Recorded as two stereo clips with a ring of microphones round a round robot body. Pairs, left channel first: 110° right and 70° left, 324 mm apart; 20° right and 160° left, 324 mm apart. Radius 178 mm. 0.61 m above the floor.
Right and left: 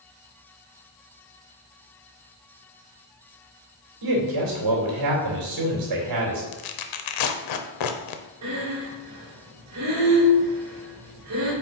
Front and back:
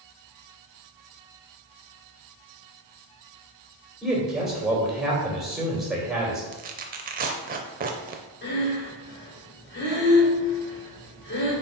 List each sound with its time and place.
4.0 s a man speaking: 70° left, 3 m
6.5 s tearing paper: 140° right, 0.6 m
8.4 s breathing: 30° left, 3 m